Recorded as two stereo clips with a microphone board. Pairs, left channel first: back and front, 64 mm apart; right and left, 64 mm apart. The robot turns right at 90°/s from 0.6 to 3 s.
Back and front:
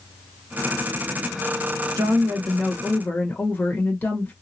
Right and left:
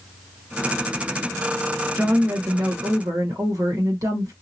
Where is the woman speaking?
20° left, 1.2 m; by 4.3 s 115° left, 1.2 m.